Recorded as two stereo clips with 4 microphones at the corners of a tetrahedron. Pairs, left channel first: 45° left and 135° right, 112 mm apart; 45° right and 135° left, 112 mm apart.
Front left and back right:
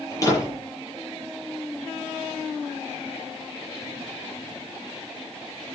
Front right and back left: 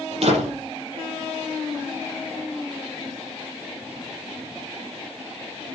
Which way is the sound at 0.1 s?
105° left.